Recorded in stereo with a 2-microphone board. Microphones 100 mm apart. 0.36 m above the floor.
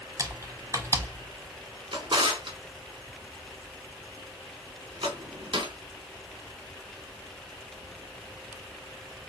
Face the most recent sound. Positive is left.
turn(degrees=-60)  # may be behind; listen again after turning